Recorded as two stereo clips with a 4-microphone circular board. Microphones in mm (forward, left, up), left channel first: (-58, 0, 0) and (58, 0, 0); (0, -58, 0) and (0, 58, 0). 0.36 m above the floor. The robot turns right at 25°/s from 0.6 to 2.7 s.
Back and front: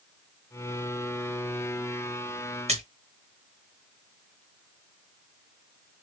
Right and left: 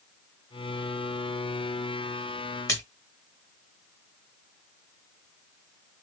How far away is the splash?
About 2 m.